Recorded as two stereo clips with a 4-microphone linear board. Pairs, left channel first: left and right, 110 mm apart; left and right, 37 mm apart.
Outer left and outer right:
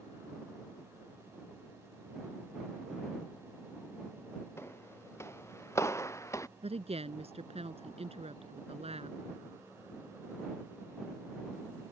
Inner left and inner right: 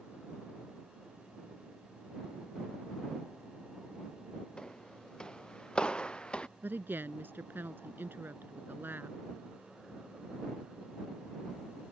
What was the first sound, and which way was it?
Footsteps, 20° left (ahead or behind).